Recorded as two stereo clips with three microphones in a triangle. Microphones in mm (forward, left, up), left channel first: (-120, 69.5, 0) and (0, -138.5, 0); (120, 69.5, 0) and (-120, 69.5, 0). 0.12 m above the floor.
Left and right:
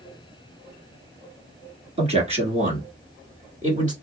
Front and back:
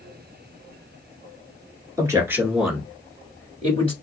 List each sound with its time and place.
2.0 s a man speaking: 110° right, 1.5 m; by 3.9 s 40° right, 1.3 m